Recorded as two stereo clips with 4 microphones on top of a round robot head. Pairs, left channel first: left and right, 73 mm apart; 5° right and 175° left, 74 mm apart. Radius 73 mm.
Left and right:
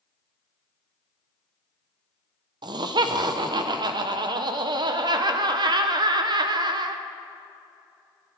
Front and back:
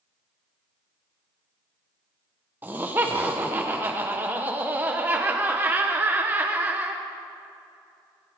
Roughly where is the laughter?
Behind right.